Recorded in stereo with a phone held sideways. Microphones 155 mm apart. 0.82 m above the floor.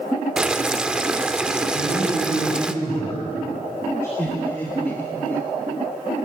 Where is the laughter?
15° left (ahead or behind), 1.5 m.